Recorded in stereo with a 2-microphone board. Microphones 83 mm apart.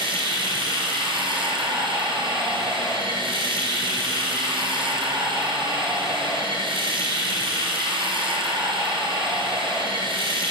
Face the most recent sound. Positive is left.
turn(degrees=-80)